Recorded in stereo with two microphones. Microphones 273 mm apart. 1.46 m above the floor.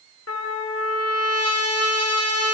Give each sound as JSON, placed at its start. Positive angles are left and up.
{"t": 0.3, "sound": "a trumpet", "side_deg": 60, "distance_m": 1.0}